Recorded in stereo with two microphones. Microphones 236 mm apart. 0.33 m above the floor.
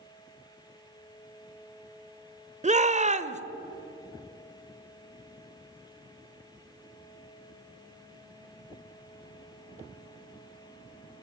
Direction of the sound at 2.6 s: 30° right (ahead or behind).